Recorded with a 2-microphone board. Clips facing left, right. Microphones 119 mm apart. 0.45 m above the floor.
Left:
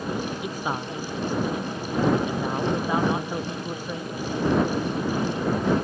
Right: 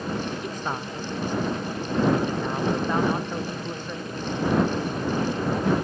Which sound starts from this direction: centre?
A man speaking, at 0.4 s.